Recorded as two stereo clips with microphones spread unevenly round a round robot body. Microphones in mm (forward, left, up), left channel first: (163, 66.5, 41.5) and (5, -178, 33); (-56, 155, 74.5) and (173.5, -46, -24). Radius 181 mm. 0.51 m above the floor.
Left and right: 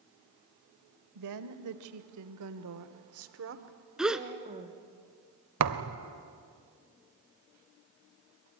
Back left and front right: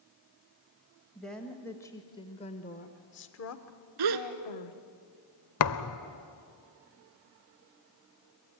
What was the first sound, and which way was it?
A woman speaking, 125° right.